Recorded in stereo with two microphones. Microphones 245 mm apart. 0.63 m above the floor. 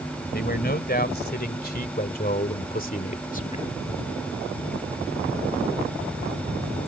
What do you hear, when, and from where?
0.3 s a man speaking: 40° left (ahead or behind); by 3.8 s 30° left (ahead or behind)